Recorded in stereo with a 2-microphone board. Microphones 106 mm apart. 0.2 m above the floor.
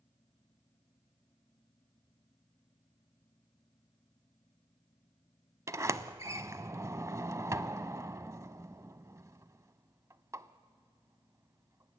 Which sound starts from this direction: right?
A sliding door, at 5.7 s.